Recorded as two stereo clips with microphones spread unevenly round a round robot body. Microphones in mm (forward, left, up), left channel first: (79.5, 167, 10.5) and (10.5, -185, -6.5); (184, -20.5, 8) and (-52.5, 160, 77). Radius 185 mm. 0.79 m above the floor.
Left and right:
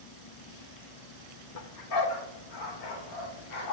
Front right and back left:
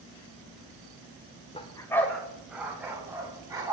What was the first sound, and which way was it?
A dog barking, 35° left.